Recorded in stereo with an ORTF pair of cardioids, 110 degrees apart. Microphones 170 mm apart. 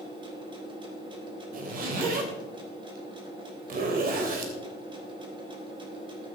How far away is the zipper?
About 2.5 m.